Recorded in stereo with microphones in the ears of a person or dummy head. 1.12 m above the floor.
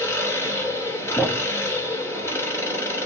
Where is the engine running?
15° left (ahead or behind), 3 m.